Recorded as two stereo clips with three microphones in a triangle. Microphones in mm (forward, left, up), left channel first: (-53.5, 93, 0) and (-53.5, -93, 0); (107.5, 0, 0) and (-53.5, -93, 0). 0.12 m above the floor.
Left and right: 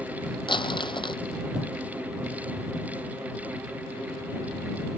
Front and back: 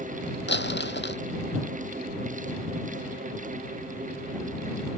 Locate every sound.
0.5 s crumpling: 25° left